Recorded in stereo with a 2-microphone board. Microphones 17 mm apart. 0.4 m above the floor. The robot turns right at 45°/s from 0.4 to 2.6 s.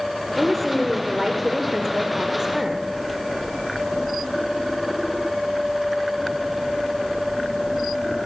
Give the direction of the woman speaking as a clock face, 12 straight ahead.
6 o'clock.